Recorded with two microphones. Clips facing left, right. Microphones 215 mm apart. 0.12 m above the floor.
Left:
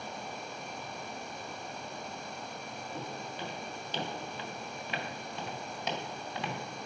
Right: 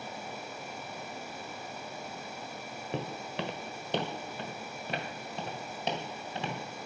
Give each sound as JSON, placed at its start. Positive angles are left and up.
{"t": 2.9, "sound": "footsteps", "side_deg": -85, "distance_m": 0.9}